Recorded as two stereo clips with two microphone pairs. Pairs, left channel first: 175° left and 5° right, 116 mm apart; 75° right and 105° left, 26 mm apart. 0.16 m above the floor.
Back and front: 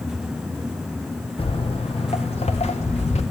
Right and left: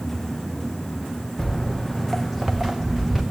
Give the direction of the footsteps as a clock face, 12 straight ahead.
5 o'clock.